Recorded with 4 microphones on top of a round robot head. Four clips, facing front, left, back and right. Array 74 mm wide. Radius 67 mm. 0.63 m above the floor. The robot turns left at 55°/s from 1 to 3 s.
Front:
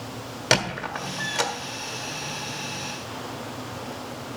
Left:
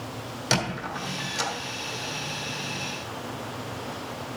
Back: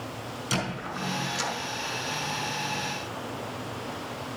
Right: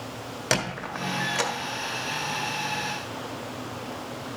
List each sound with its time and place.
0.5 s a squeak: 25° right, 1.5 m; by 1.5 s 50° right, 1.5 m